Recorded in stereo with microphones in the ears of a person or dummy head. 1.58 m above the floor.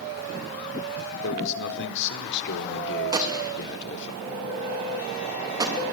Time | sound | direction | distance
1.2 | a man speaking | 65° left (ahead or behind) | 4 m
3.1 | a gunshot | 20° right (ahead or behind) | 2.5 m